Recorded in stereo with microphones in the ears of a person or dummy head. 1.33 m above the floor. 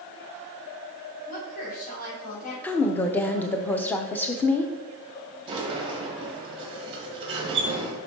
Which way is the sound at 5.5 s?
30° right (ahead or behind).